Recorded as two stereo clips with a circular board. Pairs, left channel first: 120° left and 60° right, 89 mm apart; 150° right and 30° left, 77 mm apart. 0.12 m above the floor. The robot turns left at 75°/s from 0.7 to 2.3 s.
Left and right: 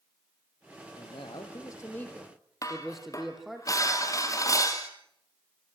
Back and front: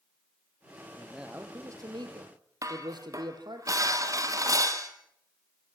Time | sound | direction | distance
1.0 | a man speaking | 125° left | 3.5 m
2.6 | dishes clattering | 70° left | 3 m